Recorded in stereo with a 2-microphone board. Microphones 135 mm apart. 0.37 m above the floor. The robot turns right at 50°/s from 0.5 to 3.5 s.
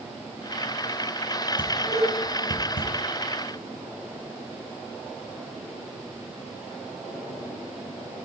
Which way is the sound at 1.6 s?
35° left (ahead or behind).